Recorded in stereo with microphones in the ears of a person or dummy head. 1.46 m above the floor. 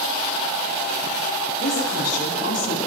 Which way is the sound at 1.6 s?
50° left (ahead or behind).